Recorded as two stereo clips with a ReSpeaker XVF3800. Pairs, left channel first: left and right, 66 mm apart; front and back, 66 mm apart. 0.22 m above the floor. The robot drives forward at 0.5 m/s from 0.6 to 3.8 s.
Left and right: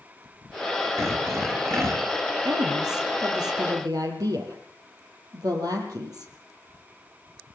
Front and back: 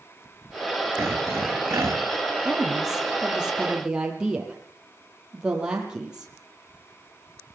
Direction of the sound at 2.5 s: 95° right.